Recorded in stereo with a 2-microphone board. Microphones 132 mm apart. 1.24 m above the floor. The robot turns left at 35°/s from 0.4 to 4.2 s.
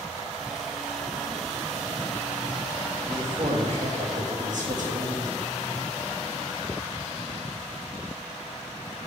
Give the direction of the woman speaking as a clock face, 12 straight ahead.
1 o'clock.